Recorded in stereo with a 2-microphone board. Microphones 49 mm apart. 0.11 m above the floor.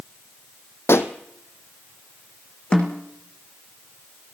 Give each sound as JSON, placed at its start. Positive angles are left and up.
{"t": 0.9, "sound": "a pop", "side_deg": 60, "distance_m": 1.3}
{"t": 2.7, "sound": "a snare drum", "side_deg": 25, "distance_m": 2.5}